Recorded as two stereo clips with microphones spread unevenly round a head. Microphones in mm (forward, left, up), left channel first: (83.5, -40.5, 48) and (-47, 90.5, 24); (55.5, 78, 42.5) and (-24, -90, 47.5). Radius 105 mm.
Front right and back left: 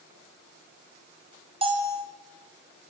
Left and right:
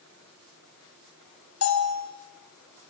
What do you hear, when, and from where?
1.6 s a bell: 75° left, 6.5 m